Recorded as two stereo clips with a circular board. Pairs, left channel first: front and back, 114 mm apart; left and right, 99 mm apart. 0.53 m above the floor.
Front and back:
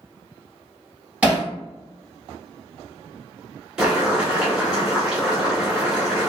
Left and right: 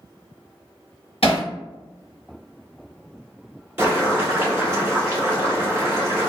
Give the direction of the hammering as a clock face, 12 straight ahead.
9 o'clock.